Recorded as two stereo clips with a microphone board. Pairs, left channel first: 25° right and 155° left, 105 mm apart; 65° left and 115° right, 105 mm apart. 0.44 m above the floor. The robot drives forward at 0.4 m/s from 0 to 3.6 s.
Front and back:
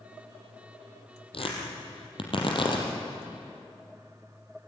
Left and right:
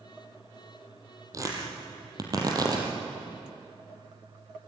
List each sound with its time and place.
1.3 s tearing paper: 55° right, 4.5 m; by 2.9 s 60° right, 4 m